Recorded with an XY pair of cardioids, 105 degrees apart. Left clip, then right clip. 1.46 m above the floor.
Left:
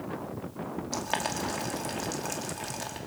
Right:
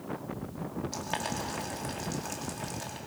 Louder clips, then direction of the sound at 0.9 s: Left 4 dB; 30° left.